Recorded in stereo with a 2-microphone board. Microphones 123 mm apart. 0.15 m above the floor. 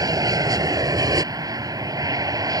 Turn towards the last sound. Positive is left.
turn(degrees=-30)  # may be behind; listen again after turning